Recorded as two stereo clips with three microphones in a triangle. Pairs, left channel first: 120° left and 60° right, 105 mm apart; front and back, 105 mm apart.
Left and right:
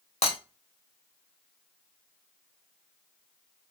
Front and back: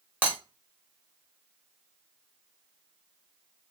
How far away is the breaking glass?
About 0.9 m.